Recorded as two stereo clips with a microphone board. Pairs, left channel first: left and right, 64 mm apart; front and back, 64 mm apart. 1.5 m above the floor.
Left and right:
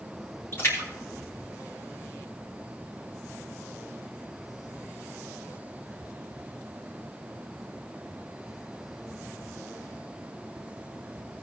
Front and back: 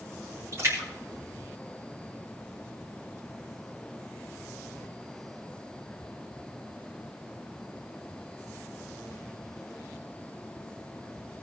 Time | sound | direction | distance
0.5 | a splash | 140° left | 3.5 m